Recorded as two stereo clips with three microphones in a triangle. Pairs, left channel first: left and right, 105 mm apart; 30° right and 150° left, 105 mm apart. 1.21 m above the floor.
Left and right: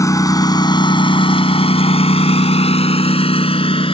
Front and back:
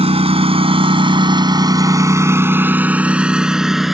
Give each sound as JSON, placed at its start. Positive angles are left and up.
{"t": 0.0, "sound": "a lawn mower", "azimuth_deg": 145}